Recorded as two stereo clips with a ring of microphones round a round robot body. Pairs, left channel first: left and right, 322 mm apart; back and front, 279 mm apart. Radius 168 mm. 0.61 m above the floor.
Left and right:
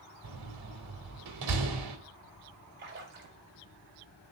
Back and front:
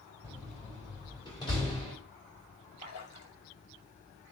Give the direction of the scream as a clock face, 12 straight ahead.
No scream in this recording.